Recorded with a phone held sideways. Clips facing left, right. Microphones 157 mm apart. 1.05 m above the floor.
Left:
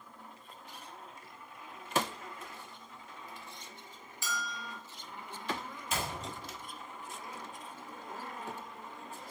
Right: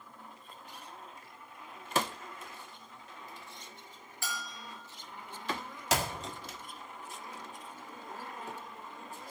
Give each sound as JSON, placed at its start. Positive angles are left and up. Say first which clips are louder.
{"t": 4.2, "sound": "a bell", "louder": "left 3 dB", "side_deg": -55, "distance_m": 4.5}
{"t": 5.9, "sound": "a clap", "louder": "right 5 dB", "side_deg": -85, "distance_m": 1.7}